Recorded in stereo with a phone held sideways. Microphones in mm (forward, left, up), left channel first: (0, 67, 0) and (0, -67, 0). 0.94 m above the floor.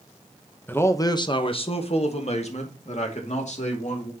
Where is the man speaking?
15° left (ahead or behind), 0.9 m; by 4.1 s 60° left (ahead or behind), 3 m.